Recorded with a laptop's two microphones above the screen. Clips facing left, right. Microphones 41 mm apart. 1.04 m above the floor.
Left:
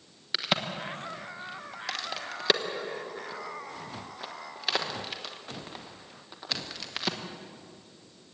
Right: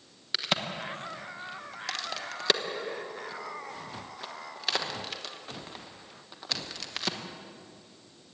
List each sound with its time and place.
0.3 s a crack: 5° left (ahead or behind), 1.2 m